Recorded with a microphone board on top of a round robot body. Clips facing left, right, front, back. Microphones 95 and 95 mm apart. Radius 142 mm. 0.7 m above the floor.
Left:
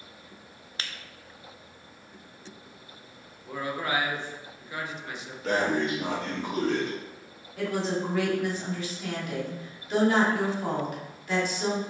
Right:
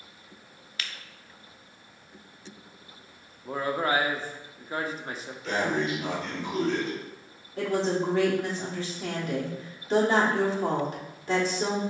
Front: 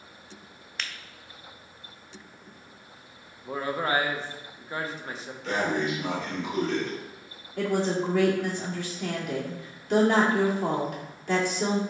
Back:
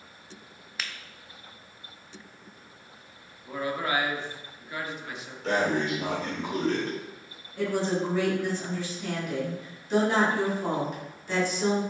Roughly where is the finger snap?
Left.